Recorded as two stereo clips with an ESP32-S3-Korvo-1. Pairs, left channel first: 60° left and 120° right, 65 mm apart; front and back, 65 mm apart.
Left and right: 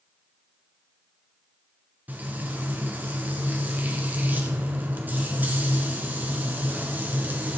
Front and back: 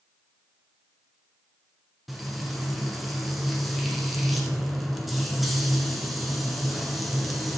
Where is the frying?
90° right, 1.7 m.